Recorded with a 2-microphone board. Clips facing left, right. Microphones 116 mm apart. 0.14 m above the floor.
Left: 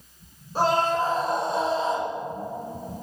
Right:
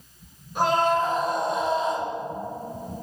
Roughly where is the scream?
Left.